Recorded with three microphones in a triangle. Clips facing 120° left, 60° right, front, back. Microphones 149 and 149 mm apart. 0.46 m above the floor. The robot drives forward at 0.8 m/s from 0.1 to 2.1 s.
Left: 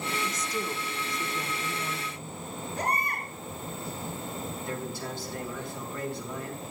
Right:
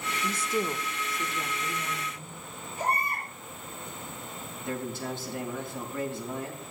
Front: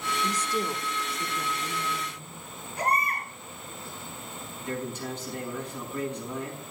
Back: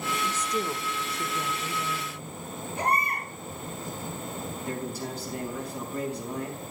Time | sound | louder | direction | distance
0.2 | a woman speaking | right 3 dB, front 1 dB | 50° right | 0.8 m
2.8 | a baby crying | right 1 dB, even | 120° left | 5 m
4.6 | a man speaking | right 6 dB, front 2 dB | 125° right | 4.5 m